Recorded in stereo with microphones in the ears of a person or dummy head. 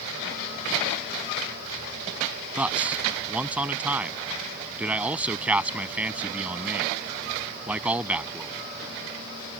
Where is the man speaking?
10° right (ahead or behind).